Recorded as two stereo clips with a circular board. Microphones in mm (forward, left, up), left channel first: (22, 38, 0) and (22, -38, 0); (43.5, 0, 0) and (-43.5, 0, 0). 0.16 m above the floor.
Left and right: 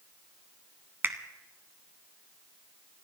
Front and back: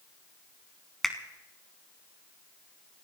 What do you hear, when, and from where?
1.0 s a finger snap: 80° right, 1.1 m